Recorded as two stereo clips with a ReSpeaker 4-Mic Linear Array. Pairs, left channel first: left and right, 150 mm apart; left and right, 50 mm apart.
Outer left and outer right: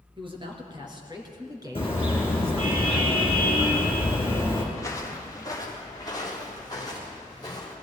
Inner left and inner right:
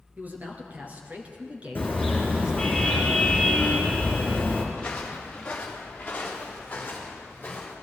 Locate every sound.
0.2 s a man speaking: 35° right (ahead or behind), 3 m; by 2.8 s 15° right (ahead or behind), 1.9 m
1.8 s a car horn: 35° left (ahead or behind), 4.5 m
4.7 s footsteps: 20° left (ahead or behind), 2.5 m; by 7.7 s 30° left (ahead or behind), 4.5 m